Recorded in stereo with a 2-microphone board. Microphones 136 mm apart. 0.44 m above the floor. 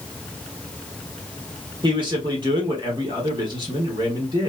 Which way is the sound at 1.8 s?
35° right (ahead or behind).